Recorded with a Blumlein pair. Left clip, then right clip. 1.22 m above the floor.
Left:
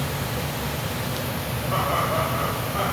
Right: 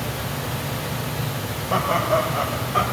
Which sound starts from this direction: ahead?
Laughter, at 1.7 s.